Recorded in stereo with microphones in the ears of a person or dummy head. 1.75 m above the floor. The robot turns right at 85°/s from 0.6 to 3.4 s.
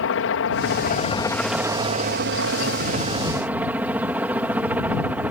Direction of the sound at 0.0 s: 105° left.